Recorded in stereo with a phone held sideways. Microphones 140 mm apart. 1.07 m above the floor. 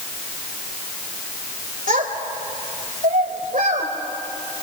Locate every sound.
1.9 s a child speaking: 70° right (ahead or behind), 3 m